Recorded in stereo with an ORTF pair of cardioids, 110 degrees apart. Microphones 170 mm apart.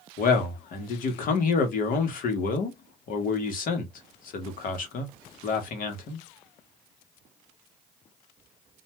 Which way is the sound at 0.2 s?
55° left.